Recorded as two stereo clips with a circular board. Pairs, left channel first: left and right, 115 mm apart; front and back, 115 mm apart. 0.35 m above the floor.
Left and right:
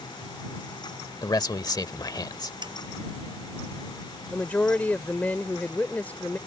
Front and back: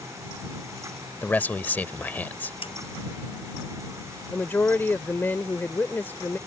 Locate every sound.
1.2 s a man speaking: 65° left
2.6 s a snare drum: 40° right
4.3 s a woman speaking: 35° left